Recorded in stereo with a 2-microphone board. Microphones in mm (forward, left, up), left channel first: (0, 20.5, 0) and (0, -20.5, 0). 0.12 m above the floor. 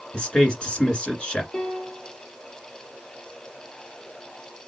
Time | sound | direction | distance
0.1 | a man speaking | 25° left (ahead or behind) | 1.6 m
1.5 | a piano | 25° left (ahead or behind) | 1.8 m